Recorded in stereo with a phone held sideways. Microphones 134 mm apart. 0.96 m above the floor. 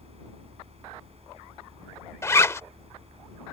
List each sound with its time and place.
0.0 s a fan: 50° right (ahead or behind)
2.2 s a zipper: 20° left (ahead or behind)